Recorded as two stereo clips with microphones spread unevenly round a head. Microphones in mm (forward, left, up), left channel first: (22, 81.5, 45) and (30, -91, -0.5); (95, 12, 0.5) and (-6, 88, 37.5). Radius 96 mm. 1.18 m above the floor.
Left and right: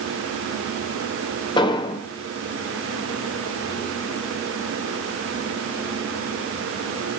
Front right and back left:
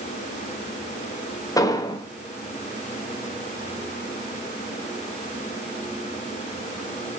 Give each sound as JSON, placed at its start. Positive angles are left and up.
{"t": 1.6, "sound": "an explosion", "azimuth_deg": 30, "distance_m": 1.1}